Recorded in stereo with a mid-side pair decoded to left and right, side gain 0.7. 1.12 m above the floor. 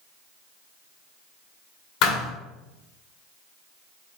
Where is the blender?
No blender in this recording.